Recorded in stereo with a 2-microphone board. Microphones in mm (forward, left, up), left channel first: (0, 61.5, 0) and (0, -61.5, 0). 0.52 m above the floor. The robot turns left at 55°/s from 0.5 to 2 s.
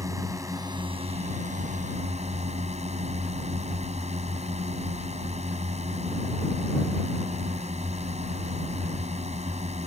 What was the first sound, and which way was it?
A drone, 25° right.